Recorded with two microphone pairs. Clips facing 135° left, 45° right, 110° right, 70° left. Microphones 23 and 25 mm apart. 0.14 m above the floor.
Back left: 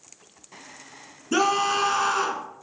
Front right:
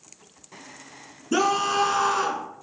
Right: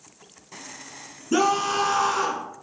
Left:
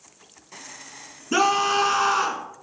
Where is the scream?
65° left, 1.8 m.